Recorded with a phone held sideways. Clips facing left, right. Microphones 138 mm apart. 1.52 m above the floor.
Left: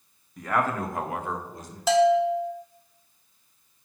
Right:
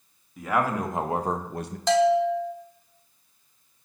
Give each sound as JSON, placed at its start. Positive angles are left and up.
{"t": 0.4, "sound": "a man speaking", "side_deg": -5, "distance_m": 1.2}
{"t": 1.9, "sound": "a bell", "side_deg": 5, "distance_m": 0.9}